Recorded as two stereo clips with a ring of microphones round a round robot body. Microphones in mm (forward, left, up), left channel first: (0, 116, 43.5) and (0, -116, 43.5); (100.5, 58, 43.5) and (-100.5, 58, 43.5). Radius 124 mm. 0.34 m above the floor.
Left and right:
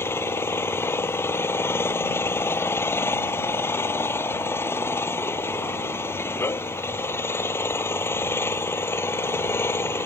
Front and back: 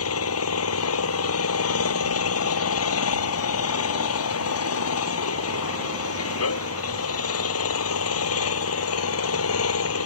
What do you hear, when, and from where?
0.0 s an engine running: 10° left